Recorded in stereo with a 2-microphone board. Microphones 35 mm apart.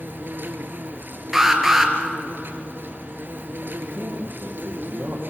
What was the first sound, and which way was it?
An insect, 60° right (ahead or behind).